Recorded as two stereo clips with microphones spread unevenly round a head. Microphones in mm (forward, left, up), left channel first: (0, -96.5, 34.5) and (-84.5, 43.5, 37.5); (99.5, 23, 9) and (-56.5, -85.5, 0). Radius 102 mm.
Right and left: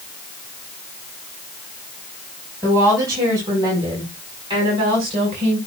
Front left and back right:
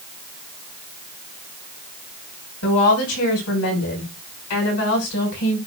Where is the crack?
No crack in this recording.